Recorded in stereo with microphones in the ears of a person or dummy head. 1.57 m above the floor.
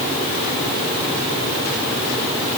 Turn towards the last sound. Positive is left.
No sound to turn to.